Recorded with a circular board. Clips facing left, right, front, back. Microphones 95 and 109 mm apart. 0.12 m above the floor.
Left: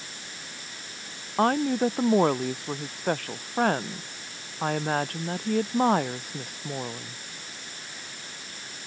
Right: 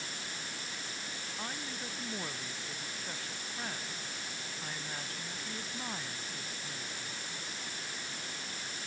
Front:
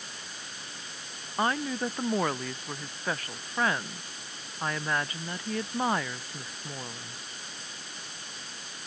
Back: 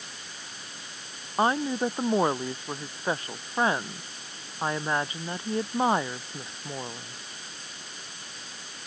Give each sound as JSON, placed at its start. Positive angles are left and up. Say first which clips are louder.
{"t": 1.4, "sound": "a woman speaking", "louder": "left 22 dB, back 4 dB", "azimuth_deg": 115}